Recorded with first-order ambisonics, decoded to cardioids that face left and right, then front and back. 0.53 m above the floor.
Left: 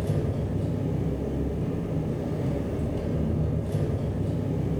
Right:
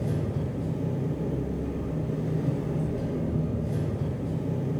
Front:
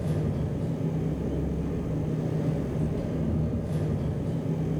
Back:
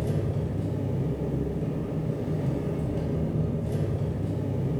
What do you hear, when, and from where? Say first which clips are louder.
0.0 s an engine running: left 2 dB, back 1 dB; 140° left, 1.3 m